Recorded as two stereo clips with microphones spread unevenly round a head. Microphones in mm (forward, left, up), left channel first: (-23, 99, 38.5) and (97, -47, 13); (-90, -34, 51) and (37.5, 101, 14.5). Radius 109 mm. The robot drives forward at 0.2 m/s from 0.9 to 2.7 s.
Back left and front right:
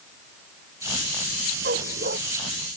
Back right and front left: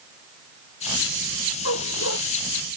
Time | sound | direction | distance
1.6 | a dog barking | 105° right | ?